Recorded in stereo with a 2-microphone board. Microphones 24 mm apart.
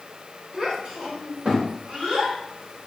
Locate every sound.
0.5 s a child speaking: 65° right (ahead or behind), 3 m; by 2.9 s 75° right (ahead or behind), 3.5 m